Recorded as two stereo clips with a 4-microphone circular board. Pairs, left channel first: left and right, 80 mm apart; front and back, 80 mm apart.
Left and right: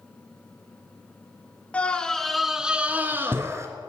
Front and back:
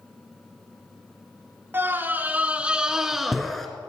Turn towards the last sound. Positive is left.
turn(degrees=-85)